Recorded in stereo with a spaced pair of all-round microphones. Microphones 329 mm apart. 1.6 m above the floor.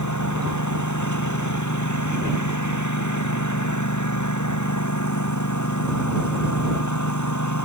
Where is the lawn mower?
60° left (ahead or behind).